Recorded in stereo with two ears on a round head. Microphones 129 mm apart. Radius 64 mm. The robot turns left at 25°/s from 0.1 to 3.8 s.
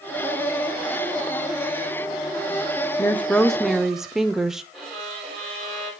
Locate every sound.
3.0 s a woman speaking: 15° left (ahead or behind), 0.7 m; by 4.6 s 5° right (ahead or behind), 0.7 m
4.7 s a violin: centre (ahead or behind), 5 m